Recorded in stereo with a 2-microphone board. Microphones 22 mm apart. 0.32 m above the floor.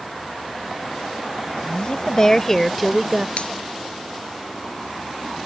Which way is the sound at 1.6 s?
50° left (ahead or behind).